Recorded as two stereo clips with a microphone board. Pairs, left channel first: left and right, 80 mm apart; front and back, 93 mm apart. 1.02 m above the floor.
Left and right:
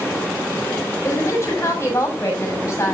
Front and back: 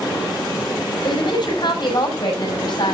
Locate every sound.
1.0 s a woman speaking: 35° left, 7 m